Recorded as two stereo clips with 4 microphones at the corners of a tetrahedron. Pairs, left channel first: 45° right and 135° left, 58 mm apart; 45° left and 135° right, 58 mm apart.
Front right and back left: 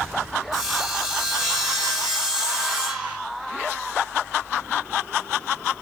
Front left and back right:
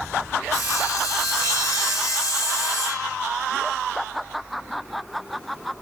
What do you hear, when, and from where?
0.5 s sawing: 60° left, 2.5 m